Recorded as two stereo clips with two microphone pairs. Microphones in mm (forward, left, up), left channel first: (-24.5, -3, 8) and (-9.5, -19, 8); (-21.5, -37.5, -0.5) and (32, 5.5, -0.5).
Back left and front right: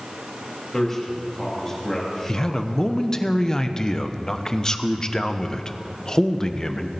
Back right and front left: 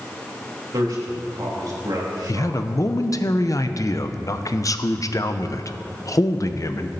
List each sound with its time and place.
0.7 s a man speaking: 65° left, 3 m
2.3 s a man speaking: 165° right, 0.7 m